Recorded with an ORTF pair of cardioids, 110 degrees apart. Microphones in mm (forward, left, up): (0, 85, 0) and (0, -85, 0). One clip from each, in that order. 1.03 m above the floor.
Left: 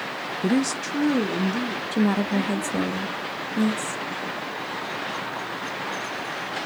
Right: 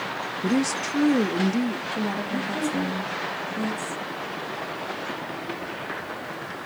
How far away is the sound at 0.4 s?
About 0.5 m.